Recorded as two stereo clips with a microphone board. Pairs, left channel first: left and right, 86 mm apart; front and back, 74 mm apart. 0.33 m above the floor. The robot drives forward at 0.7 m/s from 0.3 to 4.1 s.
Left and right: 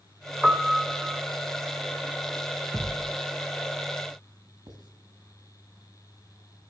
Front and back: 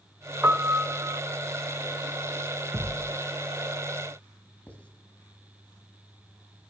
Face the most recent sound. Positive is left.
turn(degrees=-70)